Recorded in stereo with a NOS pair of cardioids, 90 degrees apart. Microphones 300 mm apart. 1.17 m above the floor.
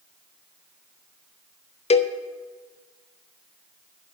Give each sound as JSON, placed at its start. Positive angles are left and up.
{"t": 1.9, "sound": "a cowbell", "azimuth_deg": 20, "distance_m": 0.5}